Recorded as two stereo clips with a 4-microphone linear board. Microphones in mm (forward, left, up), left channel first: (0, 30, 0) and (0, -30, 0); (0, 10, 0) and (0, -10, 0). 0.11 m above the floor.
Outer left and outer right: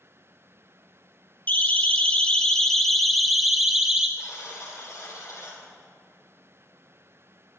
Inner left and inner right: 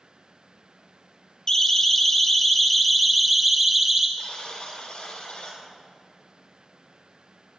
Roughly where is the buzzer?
Left.